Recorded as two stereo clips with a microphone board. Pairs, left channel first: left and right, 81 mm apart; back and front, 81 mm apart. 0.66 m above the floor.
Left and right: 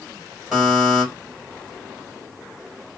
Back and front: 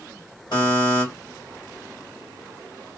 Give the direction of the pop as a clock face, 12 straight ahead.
No pop in this recording.